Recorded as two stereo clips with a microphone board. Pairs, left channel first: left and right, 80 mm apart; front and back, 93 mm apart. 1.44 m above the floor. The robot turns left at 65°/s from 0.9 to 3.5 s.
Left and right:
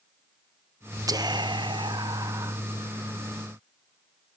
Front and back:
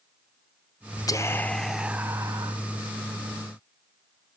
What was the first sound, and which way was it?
Whispering, 50° right.